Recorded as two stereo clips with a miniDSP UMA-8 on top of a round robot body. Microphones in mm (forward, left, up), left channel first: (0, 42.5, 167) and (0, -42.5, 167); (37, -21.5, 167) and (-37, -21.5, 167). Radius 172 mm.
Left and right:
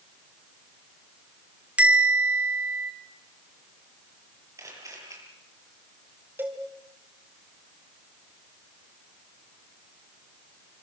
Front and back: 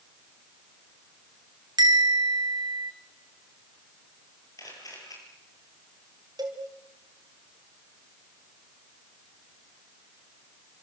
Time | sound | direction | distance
1.8 | a bell | 165° right | 3.5 m
4.6 | a camera shutter | 35° right | 9 m
6.4 | a cowbell | 155° right | 3.5 m